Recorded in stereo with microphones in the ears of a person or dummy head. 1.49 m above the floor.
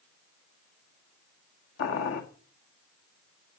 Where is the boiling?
75° left (ahead or behind), 2 m.